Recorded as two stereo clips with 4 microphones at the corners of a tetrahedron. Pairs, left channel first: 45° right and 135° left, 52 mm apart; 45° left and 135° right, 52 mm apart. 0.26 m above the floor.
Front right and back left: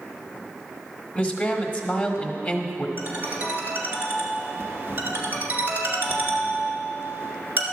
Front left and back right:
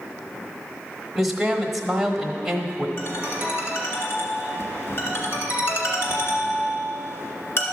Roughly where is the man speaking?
Ahead right.